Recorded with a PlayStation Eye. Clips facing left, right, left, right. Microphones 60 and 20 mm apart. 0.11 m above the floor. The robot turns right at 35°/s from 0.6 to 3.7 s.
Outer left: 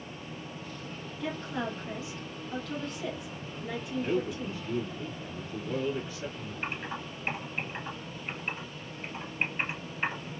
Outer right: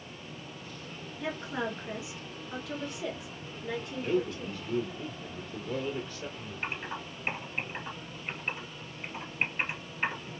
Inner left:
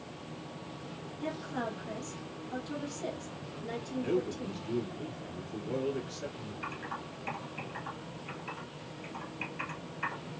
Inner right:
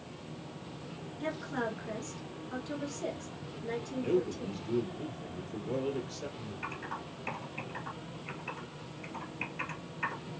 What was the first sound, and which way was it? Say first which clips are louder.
A woman speaking: even, inner right 1 dB; 25° right (ahead or behind).